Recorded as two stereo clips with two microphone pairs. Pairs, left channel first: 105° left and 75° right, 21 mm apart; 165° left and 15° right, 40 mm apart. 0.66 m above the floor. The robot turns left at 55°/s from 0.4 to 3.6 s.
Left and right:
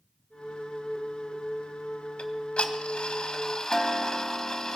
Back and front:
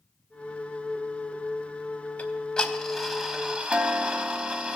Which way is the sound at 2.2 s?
120° left.